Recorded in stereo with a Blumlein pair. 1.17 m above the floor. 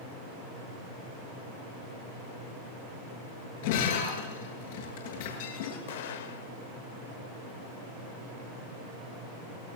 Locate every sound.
3.6 s breaking glass: 55° left, 9.5 m
5.9 s an explosion: 55° left, 3 m